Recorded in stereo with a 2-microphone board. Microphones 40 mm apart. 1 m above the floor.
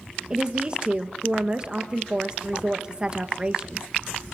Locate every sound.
0.3 s a woman speaking: 25° right (ahead or behind), 1.1 m